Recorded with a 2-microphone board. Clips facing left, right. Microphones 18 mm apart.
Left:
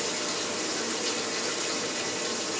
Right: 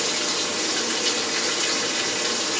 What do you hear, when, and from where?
0.0 s running water: 45° right (ahead or behind), 1.1 m